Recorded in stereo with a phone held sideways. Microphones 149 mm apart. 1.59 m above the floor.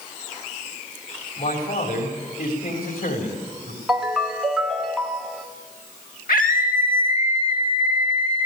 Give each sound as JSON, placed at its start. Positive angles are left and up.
{"t": 1.4, "sound": "a man speaking", "side_deg": 80, "distance_m": 4.0}
{"t": 3.9, "sound": "a ringtone", "side_deg": -5, "distance_m": 2.0}
{"t": 6.3, "sound": "a scream", "side_deg": 70, "distance_m": 2.0}